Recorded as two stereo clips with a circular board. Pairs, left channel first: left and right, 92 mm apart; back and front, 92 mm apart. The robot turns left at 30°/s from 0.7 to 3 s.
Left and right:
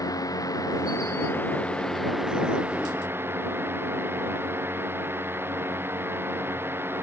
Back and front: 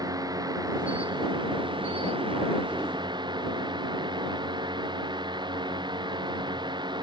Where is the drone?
40° left; by 7.0 s 25° right.